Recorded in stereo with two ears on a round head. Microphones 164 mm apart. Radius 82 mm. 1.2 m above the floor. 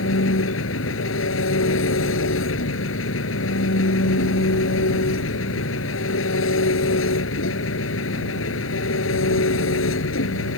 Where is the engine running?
85° left.